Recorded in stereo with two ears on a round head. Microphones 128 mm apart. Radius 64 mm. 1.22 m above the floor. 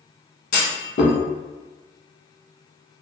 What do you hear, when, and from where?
0.5 s a clunk: 60° left (ahead or behind), 1.6 m